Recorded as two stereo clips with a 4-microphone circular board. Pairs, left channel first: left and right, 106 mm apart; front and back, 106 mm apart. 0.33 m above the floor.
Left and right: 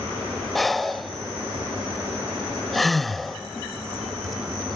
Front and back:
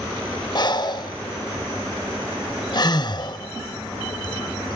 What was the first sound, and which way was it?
Breathing, straight ahead.